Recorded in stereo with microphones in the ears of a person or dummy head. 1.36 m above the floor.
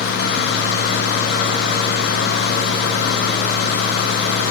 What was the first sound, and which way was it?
Only background noise.